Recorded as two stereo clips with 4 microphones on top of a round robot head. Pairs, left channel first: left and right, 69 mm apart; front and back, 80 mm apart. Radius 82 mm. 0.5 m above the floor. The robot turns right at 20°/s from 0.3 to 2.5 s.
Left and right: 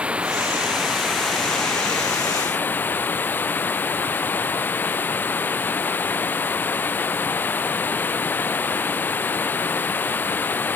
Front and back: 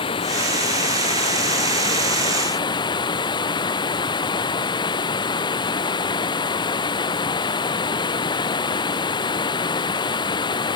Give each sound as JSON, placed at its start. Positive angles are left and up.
{"t": 0.0, "sound": "running water", "azimuth_deg": -15}